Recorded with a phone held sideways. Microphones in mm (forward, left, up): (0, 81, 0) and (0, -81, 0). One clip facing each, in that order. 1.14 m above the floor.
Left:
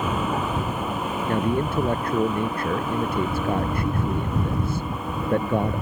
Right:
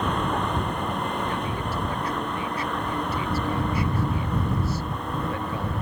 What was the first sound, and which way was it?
A vehicle, 5° left (ahead or behind).